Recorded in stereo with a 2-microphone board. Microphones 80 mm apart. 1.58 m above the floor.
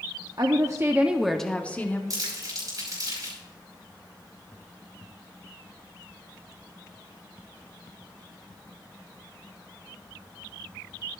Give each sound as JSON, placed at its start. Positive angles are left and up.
{"t": 0.4, "sound": "a woman speaking", "side_deg": -55, "distance_m": 0.7}
{"t": 2.1, "sound": "crumpling", "side_deg": -45, "distance_m": 5.0}